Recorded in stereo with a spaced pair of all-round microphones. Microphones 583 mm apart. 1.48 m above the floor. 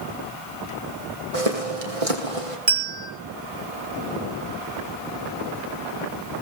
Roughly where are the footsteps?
Right.